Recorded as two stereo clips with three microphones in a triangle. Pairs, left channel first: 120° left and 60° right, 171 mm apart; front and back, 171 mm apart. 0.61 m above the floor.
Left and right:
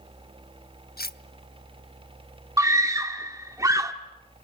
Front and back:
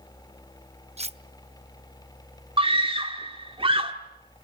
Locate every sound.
1.0 s cutlery clinking: 130° left, 0.7 m
2.6 s a scream: 130° right, 1.2 m